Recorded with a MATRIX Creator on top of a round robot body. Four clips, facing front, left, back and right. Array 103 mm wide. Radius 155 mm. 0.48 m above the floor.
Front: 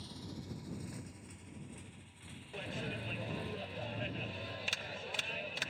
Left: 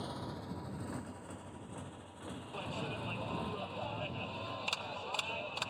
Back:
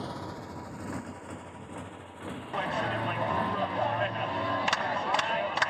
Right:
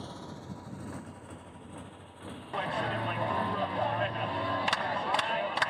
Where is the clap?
150° right.